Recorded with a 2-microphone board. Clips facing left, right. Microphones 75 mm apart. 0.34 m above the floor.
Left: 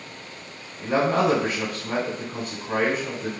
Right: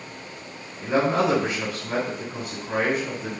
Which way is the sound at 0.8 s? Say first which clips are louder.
Even; 40° left (ahead or behind).